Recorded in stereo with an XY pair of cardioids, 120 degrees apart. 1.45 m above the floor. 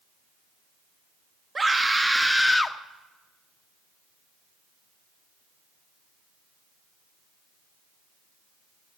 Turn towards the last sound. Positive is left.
turn(degrees=20)